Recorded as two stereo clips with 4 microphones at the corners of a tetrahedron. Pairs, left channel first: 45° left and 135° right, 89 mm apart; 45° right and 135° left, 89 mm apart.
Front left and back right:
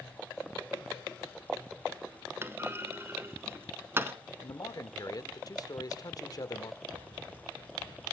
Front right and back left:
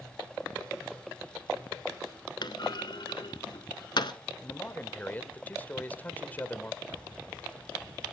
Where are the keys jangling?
150° right, 8.5 m.